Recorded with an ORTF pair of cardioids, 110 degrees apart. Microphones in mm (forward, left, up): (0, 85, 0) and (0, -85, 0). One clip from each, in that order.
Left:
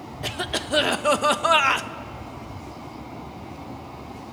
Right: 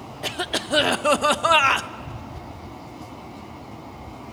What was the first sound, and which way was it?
A cough, 10° right.